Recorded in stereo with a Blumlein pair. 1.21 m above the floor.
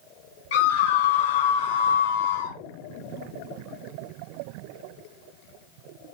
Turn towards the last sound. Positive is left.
turn(degrees=75)